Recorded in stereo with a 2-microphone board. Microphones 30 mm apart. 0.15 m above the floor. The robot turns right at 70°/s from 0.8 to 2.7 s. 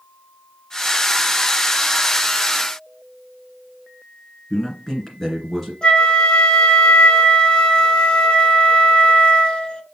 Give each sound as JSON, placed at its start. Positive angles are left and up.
{"t": 4.5, "sound": "a man speaking", "side_deg": 15, "distance_m": 1.8}
{"t": 5.8, "sound": "a flute", "side_deg": 35, "distance_m": 0.7}